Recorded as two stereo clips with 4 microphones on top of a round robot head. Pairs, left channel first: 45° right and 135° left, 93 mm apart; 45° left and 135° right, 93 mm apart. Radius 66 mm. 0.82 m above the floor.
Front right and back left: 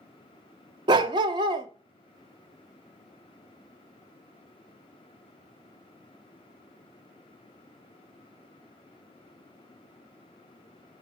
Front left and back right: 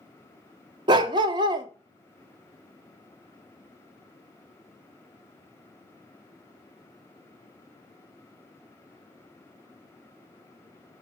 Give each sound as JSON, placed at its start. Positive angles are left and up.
{"t": 0.9, "sound": "a dog barking", "azimuth_deg": 180, "distance_m": 0.6}